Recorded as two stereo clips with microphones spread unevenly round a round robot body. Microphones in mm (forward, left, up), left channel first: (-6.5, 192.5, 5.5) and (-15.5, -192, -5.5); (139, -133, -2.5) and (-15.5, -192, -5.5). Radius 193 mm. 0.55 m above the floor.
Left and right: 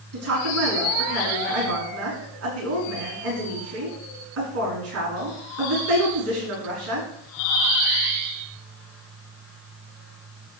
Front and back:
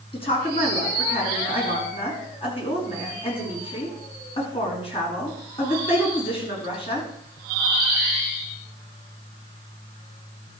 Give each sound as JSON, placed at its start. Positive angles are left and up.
{"t": 0.1, "sound": "a woman speaking", "azimuth_deg": -35, "distance_m": 6.5}